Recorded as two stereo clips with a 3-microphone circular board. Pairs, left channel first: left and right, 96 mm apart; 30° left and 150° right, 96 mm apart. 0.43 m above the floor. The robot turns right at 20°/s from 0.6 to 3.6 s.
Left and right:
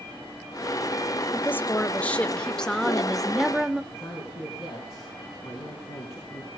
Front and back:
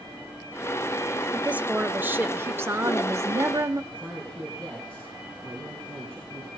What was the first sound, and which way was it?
A woman speaking, 140° left.